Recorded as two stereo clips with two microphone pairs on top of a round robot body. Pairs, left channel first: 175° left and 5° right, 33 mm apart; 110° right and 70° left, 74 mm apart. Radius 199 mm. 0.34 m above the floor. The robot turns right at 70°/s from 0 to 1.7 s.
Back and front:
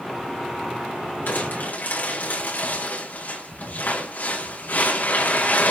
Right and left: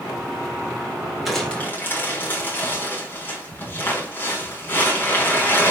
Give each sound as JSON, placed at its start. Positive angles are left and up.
{"t": 1.3, "sound": "crumpling", "azimuth_deg": 155, "distance_m": 6.0}